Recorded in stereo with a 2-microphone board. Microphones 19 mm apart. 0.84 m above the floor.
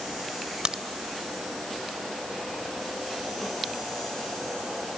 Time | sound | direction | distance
0.7 | a crack | 50° right (ahead or behind) | ?